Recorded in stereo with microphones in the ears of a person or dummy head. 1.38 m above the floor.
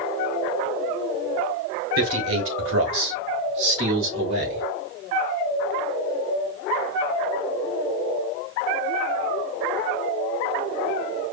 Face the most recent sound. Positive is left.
turn(degrees=-65)  # may be behind; listen again after turning